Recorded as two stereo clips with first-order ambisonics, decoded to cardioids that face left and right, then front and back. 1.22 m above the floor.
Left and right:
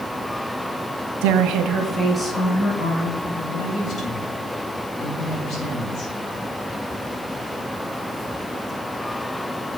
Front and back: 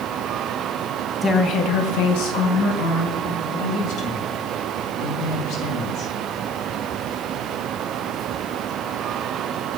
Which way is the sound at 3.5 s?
40° left.